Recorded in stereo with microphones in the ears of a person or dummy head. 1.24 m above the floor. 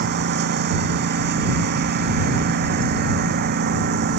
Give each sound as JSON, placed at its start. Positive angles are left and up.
{"t": 0.0, "sound": "a lawn mower", "side_deg": -55}